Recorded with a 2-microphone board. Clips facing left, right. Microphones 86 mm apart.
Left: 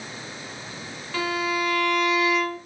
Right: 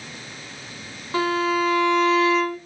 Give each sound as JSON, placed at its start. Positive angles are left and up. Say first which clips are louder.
{"t": 1.1, "sound": "a violin", "louder": "right 5 dB", "side_deg": -30, "distance_m": 1.7}